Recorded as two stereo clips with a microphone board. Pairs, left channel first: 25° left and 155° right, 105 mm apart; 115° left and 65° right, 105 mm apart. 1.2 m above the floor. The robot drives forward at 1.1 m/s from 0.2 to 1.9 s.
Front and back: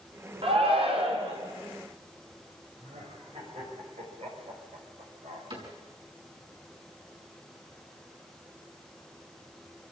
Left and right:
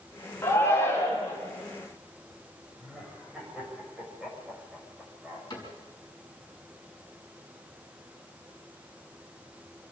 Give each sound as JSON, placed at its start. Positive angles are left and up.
{"t": 0.4, "sound": "a shout", "azimuth_deg": 175, "distance_m": 4.0}
{"t": 2.8, "sound": "laughter", "azimuth_deg": -150, "distance_m": 7.5}
{"t": 5.5, "sound": "a cupboard door", "azimuth_deg": 165, "distance_m": 6.5}